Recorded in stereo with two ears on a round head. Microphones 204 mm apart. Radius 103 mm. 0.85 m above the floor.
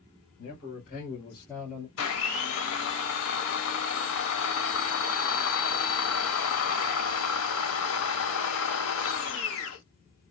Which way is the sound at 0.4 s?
50° left (ahead or behind).